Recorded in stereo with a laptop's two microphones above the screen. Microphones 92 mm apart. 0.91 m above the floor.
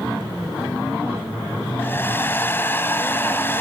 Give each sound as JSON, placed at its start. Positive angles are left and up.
{"t": 1.8, "sound": "a hair dryer", "side_deg": 25, "distance_m": 1.0}